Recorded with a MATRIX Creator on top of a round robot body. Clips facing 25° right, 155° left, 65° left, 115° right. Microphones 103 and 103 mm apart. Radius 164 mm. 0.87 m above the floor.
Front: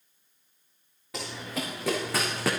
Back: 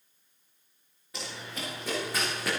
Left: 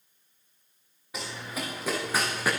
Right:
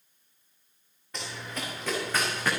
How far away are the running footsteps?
About 6.5 m.